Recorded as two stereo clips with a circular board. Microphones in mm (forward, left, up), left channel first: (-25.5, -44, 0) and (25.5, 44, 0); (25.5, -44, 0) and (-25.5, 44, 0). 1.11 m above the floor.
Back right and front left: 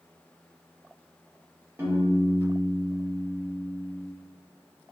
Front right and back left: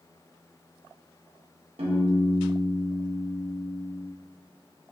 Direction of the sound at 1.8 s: 130° left.